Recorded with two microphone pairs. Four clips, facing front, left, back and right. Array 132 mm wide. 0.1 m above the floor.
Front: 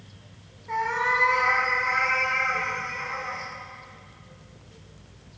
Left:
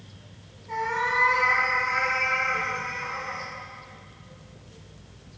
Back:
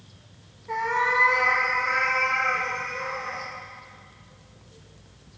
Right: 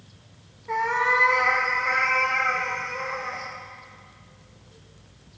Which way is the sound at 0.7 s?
65° right.